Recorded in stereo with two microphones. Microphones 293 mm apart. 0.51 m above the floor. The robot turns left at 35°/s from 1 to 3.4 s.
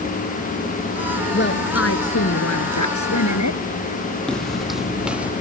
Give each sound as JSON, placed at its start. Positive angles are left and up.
{"t": 1.3, "sound": "a woman speaking", "azimuth_deg": 145}
{"t": 4.3, "sound": "footsteps", "side_deg": 0}